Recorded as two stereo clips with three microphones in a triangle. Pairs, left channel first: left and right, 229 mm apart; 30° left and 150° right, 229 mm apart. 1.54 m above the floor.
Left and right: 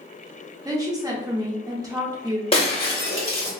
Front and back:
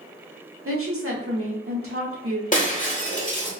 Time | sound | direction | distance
0.7 | a woman speaking | 165° right | 1.0 m
2.5 | breaking glass | 45° left | 1.3 m